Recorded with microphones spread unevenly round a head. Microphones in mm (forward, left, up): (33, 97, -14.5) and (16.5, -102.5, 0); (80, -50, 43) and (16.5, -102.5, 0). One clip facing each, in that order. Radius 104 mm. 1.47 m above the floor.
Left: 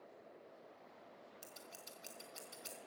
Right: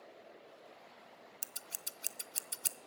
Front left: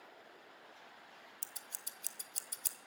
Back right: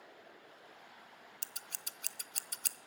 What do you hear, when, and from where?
1.4 s scissors: 115° right, 0.7 m